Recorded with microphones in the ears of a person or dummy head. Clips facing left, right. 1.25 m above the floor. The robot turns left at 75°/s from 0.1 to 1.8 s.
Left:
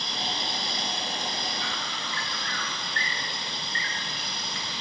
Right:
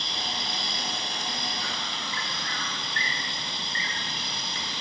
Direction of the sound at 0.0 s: 30° right.